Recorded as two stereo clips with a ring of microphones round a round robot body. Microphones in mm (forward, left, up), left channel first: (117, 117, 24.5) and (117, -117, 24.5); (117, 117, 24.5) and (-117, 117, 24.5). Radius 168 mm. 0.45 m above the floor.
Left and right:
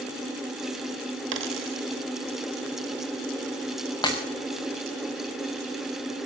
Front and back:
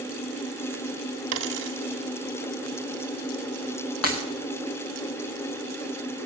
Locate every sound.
1.3 s a dropped coin: 135° right, 0.7 m
4.0 s breaking glass: 20° left, 3.5 m